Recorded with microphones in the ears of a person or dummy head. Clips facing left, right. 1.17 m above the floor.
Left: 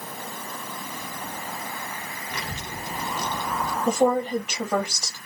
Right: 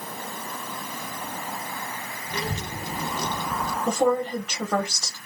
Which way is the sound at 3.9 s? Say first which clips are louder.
Left 1 dB; 10° left (ahead or behind).